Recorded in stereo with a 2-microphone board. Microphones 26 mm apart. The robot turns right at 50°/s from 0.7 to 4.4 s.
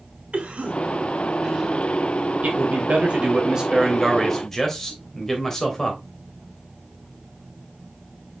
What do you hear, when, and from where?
0.3 s a cough: 55° right (ahead or behind), 2.5 m; by 1.7 s 5° right (ahead or behind), 2.5 m
2.4 s a man speaking: 80° right, 3 m; by 6.0 s 15° left, 3 m